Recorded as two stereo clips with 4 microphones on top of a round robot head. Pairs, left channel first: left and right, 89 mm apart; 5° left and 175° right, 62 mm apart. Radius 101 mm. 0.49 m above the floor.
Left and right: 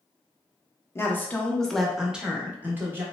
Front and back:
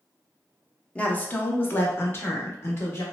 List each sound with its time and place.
0.9 s a woman speaking: 60° left, 0.8 m; by 3.0 s 35° right, 1.2 m